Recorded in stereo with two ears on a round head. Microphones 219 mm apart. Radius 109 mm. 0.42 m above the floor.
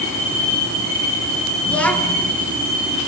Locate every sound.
1.6 s a child speaking: 5° left (ahead or behind), 3 m